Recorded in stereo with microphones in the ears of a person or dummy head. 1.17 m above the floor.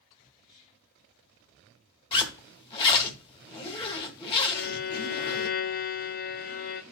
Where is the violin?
40° left (ahead or behind), 0.5 m.